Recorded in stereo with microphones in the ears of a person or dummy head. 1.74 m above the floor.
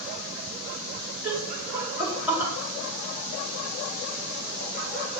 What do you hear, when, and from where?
1.2 s laughter: 10° right (ahead or behind), 5 m; by 2.5 s 15° right (ahead or behind), 4 m